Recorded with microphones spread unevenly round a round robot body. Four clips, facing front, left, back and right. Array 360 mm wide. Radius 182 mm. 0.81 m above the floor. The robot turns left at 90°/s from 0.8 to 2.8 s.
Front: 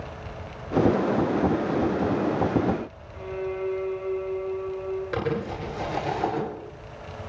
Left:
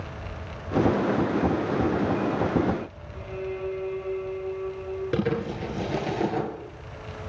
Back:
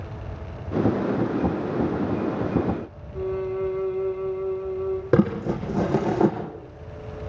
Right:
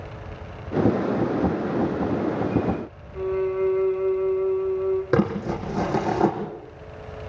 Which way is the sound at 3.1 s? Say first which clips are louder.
Right 10 dB, back 4 dB; 155° right.